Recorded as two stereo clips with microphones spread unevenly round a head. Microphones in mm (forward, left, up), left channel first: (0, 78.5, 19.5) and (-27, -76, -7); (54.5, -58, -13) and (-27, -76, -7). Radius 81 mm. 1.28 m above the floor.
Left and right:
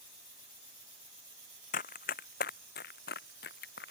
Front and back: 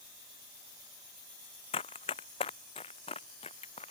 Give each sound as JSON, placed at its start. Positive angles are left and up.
{"t": 1.7, "sound": "running footsteps", "azimuth_deg": 40}